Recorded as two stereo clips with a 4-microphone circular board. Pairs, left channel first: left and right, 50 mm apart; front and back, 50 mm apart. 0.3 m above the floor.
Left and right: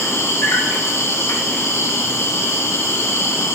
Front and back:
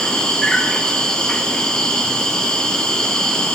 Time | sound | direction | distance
0.0 | an insect | 70° left | 1.1 m